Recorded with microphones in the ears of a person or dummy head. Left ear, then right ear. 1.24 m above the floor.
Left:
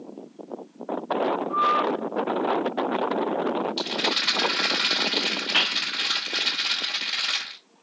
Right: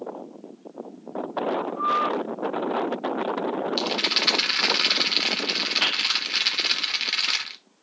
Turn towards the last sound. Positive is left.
turn(degrees=-25)  # may be behind; listen again after turning